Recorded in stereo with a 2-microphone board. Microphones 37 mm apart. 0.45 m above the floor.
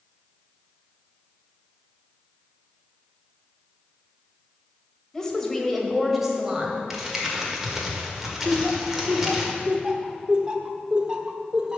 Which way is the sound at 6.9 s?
10° right (ahead or behind).